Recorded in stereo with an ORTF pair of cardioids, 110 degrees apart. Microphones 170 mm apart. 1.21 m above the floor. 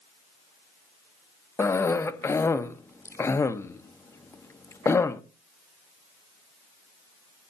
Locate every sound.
1.6 s a cough: 15° left, 0.8 m